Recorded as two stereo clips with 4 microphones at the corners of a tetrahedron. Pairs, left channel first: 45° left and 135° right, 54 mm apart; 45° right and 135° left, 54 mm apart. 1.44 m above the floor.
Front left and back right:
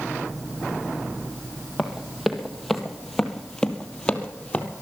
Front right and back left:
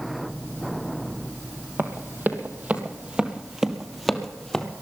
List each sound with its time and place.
1.8 s running footsteps: 140° left, 1.9 m; by 4.7 s 20° left, 1.6 m